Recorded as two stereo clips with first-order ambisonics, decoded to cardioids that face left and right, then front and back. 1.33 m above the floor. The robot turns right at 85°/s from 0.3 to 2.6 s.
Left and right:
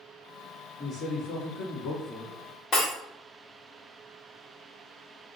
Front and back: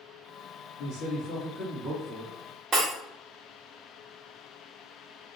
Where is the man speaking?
15° left, 1.9 m; by 2.3 s 145° left, 1.9 m.